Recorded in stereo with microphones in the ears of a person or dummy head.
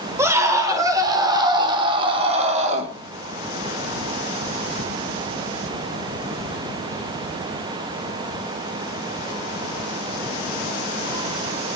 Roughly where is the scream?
Right.